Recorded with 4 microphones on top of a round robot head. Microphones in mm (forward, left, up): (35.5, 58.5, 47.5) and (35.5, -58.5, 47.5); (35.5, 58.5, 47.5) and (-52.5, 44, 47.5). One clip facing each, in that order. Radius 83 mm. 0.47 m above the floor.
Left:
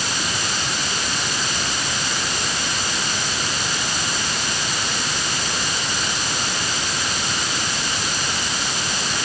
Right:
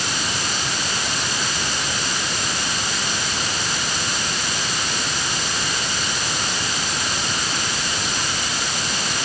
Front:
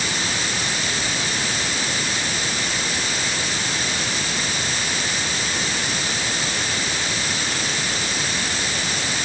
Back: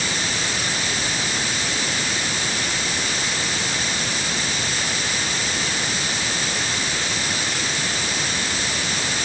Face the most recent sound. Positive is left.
No sound to turn to.